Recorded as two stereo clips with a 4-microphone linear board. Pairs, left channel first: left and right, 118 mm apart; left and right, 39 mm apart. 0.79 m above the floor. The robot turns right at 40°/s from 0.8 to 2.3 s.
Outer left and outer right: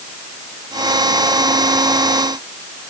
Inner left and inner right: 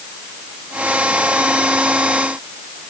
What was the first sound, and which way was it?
Only background noise.